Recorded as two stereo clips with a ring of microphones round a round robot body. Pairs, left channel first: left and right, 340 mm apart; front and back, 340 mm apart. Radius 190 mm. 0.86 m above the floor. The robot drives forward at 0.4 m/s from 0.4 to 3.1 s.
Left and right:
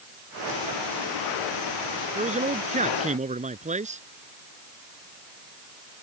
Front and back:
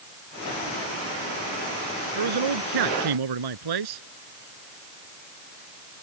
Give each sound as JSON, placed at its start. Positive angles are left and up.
{"t": 2.1, "sound": "a man speaking", "azimuth_deg": -160}